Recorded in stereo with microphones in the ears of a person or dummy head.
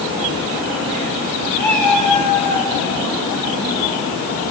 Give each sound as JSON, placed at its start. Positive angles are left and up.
{"t": 1.6, "sound": "a cat meowing", "side_deg": 10, "distance_m": 7.0}